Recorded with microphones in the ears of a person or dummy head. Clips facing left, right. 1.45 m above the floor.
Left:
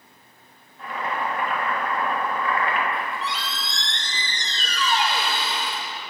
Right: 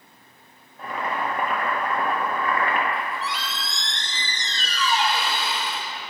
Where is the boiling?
45° right (ahead or behind), 1.1 m.